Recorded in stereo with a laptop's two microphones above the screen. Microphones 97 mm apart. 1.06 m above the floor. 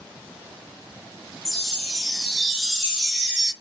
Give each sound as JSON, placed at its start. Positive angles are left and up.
{"t": 1.4, "sound": "a chime", "side_deg": -5, "distance_m": 0.8}